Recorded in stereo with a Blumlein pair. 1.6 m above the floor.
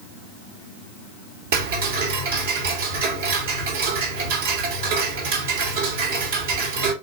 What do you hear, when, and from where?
1.5 s ticking: 55° right, 2 m